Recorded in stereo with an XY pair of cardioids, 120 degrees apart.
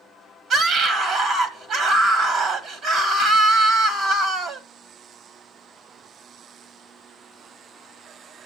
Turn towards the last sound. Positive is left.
turn(degrees=-60)